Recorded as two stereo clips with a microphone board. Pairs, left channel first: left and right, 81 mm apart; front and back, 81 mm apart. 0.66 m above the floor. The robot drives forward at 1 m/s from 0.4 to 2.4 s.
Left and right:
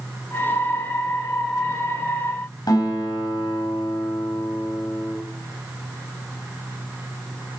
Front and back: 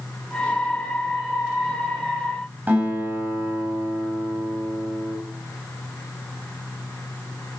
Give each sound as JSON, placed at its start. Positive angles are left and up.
{"t": 2.7, "sound": "a guitar", "azimuth_deg": 115, "distance_m": 5.0}